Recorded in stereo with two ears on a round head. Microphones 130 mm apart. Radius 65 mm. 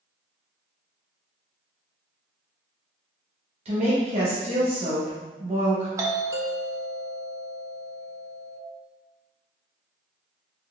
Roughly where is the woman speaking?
Right.